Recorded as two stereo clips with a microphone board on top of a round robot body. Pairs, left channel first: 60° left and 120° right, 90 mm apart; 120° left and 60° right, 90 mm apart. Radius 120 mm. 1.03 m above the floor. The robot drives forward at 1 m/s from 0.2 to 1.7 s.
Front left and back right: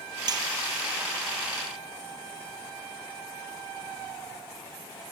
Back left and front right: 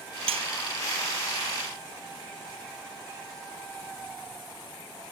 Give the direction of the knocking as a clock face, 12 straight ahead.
I don't hear knocking.